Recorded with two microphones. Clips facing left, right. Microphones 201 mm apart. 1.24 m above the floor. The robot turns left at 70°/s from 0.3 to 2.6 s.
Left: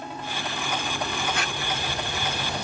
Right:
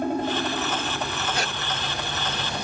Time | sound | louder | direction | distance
0.0 | a helicopter | right 10 dB | 125° right | ?
1.4 | a squeak | right 2 dB | 35° right (ahead or behind) | ?